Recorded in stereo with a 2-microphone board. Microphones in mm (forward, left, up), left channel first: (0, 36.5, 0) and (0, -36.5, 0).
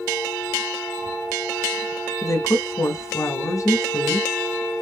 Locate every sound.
2.2 s a woman speaking: 45° left (ahead or behind), 1.4 m